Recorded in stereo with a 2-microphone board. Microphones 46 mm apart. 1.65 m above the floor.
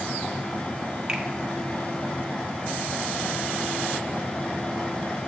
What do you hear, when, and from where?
1.1 s a finger snap: 15° right (ahead or behind), 1.2 m